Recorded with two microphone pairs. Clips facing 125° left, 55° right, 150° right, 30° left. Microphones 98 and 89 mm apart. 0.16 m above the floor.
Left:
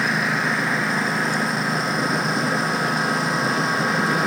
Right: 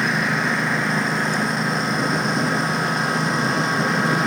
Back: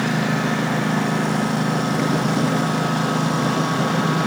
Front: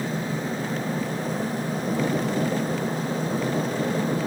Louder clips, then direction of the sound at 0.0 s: Right 1 dB, back 7 dB; 145° right.